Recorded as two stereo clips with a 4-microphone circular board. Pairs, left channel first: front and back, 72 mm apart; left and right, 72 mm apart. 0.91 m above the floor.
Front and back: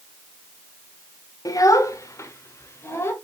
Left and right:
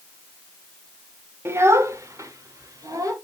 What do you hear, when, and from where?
1.4 s a child speaking: 35° right, 1.2 m; by 3.1 s 55° right, 2.5 m